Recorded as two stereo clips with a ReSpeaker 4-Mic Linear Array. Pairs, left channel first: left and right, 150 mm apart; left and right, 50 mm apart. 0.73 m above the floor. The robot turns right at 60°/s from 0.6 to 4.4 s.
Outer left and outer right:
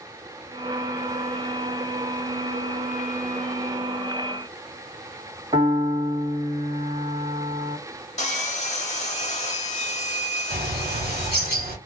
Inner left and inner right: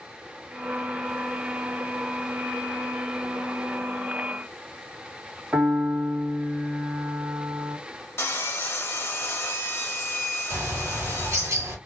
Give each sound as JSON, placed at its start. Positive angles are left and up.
{"t": 5.5, "sound": "a piano", "side_deg": -35, "distance_m": 1.4}
{"t": 8.2, "sound": "sawing", "side_deg": 50, "distance_m": 0.7}
{"t": 10.5, "sound": "a bird", "side_deg": -85, "distance_m": 1.2}